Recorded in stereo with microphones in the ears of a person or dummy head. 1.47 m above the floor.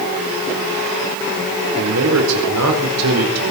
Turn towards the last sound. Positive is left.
turn(degrees=-85)